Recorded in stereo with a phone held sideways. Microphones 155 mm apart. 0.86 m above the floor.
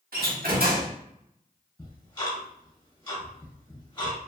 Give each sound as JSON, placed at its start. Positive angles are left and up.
{"t": 0.1, "sound": "a door slam", "side_deg": -75, "distance_m": 1.0}
{"t": 1.8, "sound": "ticking", "side_deg": 30, "distance_m": 1.2}